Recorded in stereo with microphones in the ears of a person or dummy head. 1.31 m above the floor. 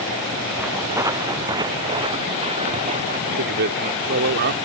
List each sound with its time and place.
0.6 s footsteps: 15° right (ahead or behind); by 3.2 s 40° right (ahead or behind)
3.3 s a man speaking: 55° right (ahead or behind)